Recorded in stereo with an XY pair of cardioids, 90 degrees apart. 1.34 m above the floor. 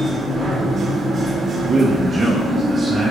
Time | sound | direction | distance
0.0 | a machine running | 50° right | 0.9 m
1.7 | a man speaking | 40° right | 0.6 m